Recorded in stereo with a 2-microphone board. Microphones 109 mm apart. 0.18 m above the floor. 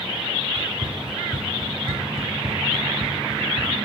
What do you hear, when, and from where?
0.6 s running footsteps: 35° right (ahead or behind), 2 m; by 3.7 s 60° right (ahead or behind), 3.5 m